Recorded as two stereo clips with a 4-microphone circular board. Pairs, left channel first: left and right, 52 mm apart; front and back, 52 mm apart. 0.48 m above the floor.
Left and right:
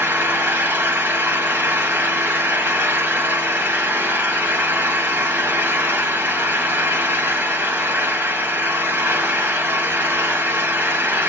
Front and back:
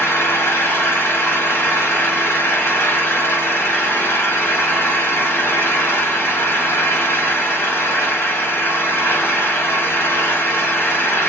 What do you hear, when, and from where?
0.0 s an engine running: 40° right, 1.5 m